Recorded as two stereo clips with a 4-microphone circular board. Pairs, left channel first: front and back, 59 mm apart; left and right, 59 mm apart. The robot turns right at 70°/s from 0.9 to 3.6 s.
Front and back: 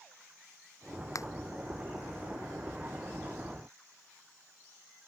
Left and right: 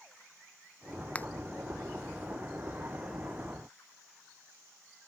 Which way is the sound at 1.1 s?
25° left.